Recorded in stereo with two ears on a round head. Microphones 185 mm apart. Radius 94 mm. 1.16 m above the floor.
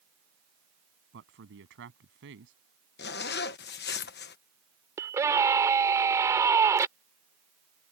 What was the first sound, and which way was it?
A man speaking, 65° right (ahead or behind).